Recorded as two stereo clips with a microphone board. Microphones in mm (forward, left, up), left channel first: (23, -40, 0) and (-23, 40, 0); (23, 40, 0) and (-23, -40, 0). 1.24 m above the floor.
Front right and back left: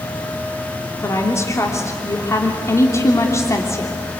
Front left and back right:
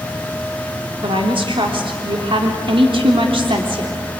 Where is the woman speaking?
115° right, 3 m.